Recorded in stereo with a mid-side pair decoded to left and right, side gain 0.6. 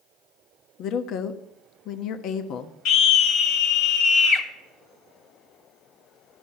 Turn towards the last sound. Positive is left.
turn(degrees=65)